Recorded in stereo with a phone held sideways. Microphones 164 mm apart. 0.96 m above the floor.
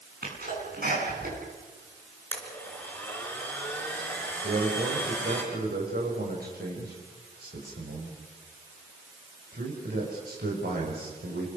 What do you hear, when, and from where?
0.2 s a sneeze: 65° right (ahead or behind), 9.5 m
2.3 s a blender: 10° left (ahead or behind), 5 m
4.4 s a man speaking: 80° right, 5.5 m